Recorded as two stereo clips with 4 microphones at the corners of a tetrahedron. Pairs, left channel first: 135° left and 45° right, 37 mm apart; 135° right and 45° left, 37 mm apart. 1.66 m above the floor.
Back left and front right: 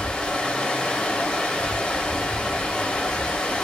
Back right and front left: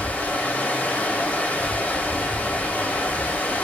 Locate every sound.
0.0 s running water: 165° right, 1.0 m